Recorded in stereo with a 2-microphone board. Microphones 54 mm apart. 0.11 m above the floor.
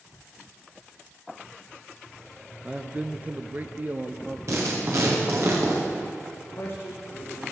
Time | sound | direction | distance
2.6 | a man speaking | 20° right (ahead or behind) | 1.2 m
4.5 | writing | 65° right (ahead or behind) | 9.5 m
6.4 | a man speaking | 45° left (ahead or behind) | 8.5 m